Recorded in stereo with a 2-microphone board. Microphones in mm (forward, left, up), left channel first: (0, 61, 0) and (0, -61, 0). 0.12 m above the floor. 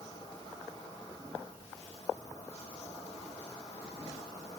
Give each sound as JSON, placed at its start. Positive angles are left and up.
{"t": 0.0, "sound": "an insect", "side_deg": 30, "distance_m": 1.7}